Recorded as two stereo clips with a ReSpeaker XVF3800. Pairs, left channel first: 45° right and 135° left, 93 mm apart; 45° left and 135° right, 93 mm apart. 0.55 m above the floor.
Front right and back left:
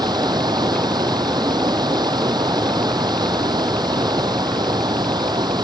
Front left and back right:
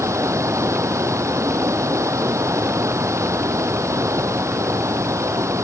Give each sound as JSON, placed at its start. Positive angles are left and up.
{"t": 0.0, "sound": "running water", "azimuth_deg": 170}